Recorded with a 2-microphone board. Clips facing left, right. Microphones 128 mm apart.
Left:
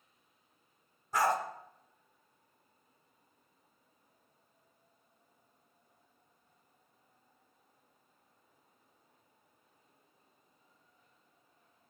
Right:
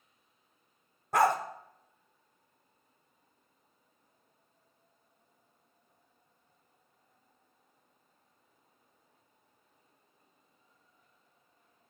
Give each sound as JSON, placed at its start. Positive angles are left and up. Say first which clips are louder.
{"t": 1.1, "sound": "a dog barking", "louder": "right 4 dB", "side_deg": -70, "distance_m": 0.7}